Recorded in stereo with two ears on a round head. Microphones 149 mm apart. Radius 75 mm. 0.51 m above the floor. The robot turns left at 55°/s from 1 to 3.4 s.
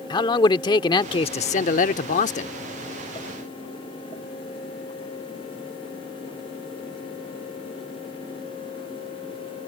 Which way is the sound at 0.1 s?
145° left.